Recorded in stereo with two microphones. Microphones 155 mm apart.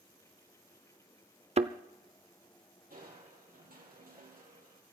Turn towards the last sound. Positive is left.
turn(degrees=-65)  # may be behind; listen again after turning